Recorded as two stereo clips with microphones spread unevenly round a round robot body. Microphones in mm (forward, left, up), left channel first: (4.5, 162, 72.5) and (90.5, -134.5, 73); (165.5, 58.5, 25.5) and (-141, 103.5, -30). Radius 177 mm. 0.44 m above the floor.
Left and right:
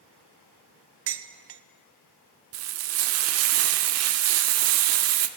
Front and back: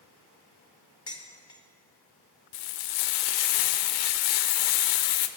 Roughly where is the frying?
Ahead right.